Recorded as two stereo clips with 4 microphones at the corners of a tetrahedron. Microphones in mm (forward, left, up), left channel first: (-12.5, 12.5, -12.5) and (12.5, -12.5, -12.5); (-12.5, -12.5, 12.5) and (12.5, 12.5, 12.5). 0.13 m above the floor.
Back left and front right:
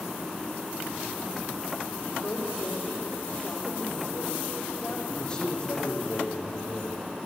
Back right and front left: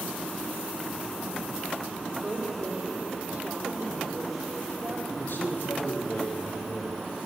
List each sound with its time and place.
2.2 s a woman speaking: 85° left, 6.5 m
5.1 s a man speaking: 155° right, 5 m